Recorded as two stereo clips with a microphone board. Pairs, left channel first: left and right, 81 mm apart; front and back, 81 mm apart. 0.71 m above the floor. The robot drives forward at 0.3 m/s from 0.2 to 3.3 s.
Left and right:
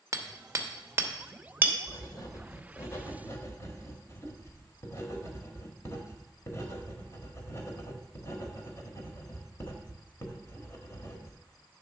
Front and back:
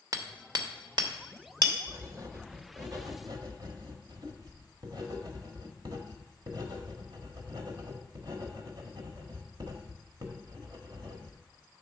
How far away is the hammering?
About 0.8 m.